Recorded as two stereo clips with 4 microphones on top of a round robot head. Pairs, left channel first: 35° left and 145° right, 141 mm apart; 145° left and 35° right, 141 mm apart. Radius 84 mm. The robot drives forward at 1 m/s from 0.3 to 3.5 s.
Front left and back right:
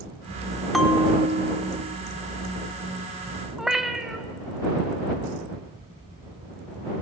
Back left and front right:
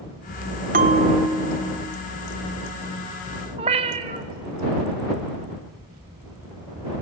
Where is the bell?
50° right, 0.7 m; by 2.0 s 155° right, 1.1 m.